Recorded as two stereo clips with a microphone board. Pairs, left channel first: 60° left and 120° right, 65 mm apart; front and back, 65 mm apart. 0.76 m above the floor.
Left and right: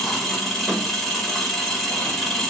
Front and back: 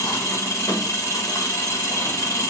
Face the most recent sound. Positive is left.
turn(degrees=-25)